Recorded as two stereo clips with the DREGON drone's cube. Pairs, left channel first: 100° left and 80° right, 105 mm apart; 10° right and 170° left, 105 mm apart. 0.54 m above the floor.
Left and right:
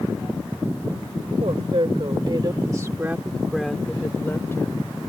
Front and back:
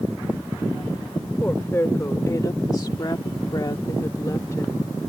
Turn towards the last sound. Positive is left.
turn(degrees=50)